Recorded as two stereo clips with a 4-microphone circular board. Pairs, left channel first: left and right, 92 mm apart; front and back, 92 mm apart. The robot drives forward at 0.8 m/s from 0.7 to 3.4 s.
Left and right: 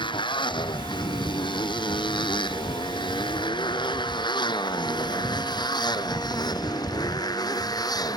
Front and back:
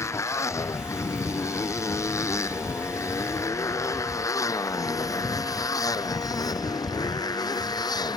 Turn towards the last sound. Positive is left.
turn(degrees=45)